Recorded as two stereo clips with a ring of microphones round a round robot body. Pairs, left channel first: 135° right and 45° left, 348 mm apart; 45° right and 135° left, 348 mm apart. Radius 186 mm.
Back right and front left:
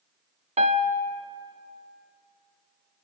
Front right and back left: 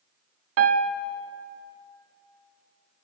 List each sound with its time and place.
0.6 s a piano: 110° left, 1.1 m